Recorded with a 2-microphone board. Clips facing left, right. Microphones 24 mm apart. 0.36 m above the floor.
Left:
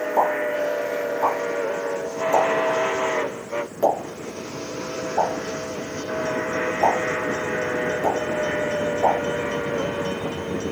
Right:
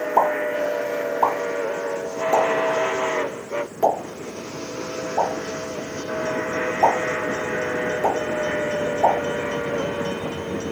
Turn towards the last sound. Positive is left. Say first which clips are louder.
# right 2 dB
turn(degrees=-30)  # may be behind; listen again after turning